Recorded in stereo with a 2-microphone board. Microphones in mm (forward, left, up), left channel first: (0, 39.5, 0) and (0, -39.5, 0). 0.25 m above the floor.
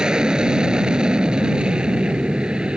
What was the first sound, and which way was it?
An aircraft, 10° right (ahead or behind).